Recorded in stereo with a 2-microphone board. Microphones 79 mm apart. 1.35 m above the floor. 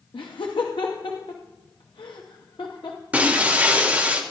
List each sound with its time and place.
0.1 s laughter: 80° left, 0.7 m
3.1 s breaking glass: 20° right (ahead or behind), 1.2 m